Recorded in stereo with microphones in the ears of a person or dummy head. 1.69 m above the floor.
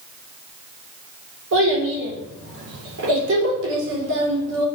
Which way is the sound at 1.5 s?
75° right (ahead or behind).